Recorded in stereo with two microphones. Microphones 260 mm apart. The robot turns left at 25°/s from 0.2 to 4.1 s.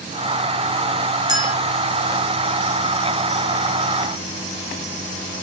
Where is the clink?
15° right (ahead or behind), 2.5 m; by 1.5 s 10° right (ahead or behind), 2.5 m.